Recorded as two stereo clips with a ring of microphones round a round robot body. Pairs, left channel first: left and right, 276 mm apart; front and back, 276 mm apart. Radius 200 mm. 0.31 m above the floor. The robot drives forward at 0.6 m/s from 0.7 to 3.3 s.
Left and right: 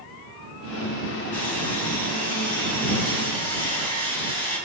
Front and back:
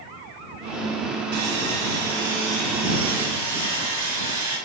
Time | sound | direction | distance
1.3 | sawing | 175° left | 1.5 m